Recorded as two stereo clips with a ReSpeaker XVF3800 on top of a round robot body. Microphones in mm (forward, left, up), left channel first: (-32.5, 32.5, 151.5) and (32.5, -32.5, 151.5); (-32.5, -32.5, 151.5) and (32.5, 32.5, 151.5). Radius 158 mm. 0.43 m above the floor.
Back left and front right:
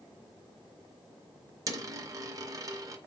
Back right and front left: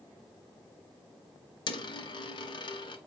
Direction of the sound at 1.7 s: 95° right.